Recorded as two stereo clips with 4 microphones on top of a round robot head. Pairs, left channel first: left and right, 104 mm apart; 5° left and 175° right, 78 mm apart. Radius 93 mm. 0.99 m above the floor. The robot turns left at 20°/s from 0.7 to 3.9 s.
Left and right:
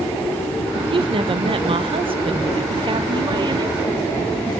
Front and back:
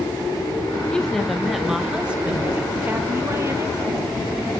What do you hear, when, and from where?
0.9 s a woman speaking: 70° right, 1.3 m; by 3.8 s 130° right, 1.3 m